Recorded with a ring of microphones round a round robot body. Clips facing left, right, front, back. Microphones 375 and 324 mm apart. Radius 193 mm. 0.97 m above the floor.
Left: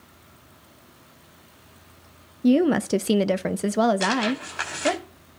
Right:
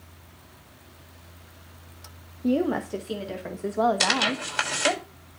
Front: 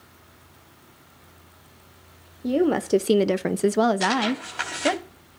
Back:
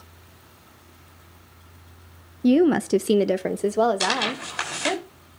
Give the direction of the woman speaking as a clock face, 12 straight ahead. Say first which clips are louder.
Left 6 dB, back 4 dB; 7 o'clock.